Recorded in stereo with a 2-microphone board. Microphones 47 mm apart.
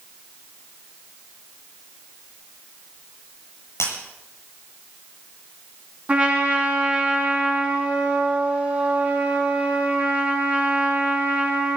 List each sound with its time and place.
3.8 s breaking glass: 70° left (ahead or behind), 8.5 m
6.1 s a trumpet: 25° right (ahead or behind), 5.5 m